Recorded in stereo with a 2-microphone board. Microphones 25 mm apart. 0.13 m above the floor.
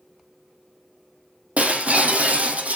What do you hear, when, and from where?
1.6 s breaking glass: 70° right (ahead or behind), 3 m